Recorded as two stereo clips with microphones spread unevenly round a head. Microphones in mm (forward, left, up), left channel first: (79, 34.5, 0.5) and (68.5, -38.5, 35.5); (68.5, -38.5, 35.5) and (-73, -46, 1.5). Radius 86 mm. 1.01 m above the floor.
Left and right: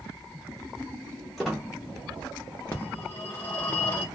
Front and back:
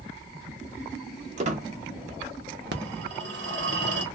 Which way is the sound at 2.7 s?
170° left.